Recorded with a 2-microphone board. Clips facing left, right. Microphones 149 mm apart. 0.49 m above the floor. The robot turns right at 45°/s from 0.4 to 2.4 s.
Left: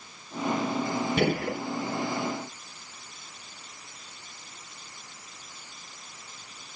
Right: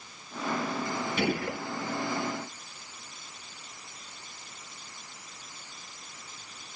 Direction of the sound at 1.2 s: 55° left (ahead or behind).